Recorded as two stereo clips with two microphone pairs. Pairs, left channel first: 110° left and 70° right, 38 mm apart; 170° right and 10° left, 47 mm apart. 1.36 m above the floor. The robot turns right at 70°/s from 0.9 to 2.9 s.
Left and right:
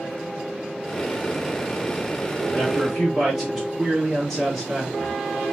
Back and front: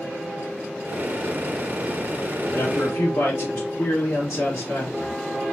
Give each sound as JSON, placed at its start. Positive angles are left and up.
{"t": 2.5, "sound": "a man speaking", "azimuth_deg": 170, "distance_m": 2.5}